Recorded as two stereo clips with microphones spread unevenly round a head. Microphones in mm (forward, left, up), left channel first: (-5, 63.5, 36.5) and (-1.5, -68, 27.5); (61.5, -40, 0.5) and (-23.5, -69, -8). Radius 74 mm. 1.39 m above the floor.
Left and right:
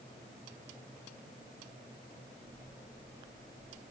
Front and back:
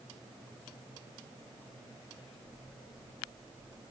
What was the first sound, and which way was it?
Only background noise.